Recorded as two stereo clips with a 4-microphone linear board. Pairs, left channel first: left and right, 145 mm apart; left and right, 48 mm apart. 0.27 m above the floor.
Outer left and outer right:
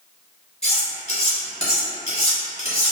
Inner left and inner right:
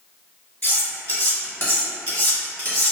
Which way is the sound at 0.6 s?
50° left (ahead or behind).